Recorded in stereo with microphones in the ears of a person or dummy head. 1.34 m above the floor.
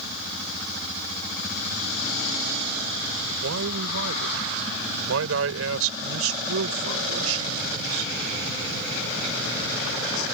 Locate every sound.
3.4 s a man speaking: 80° right